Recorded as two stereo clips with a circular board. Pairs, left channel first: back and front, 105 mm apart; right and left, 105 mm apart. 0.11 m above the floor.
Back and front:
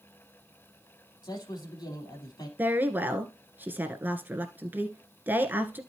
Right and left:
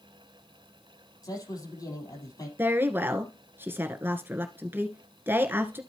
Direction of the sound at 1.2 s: 135° right.